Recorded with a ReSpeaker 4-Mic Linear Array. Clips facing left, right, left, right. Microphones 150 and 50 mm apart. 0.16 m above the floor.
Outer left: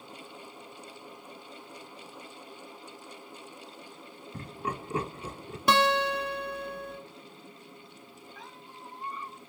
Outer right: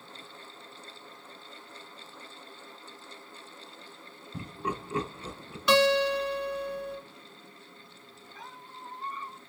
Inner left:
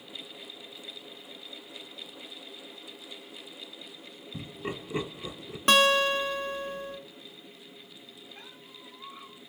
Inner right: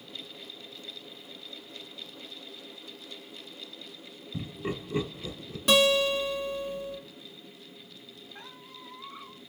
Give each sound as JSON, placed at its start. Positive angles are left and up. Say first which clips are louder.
{"t": 4.3, "sound": "laughter", "louder": "outer right 1 dB, inner right 2 dB", "side_deg": -10, "distance_m": 1.1}
{"t": 5.7, "sound": "a guitar", "louder": "outer right 2 dB, inner left 1 dB", "side_deg": 50, "distance_m": 0.9}
{"t": 8.3, "sound": "a squeak", "louder": "outer right 4 dB, inner right 2 dB", "side_deg": -45, "distance_m": 2.5}